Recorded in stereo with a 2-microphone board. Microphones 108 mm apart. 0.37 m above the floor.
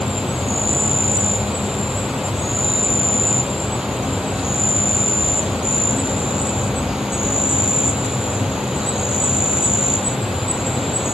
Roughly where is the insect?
Centre.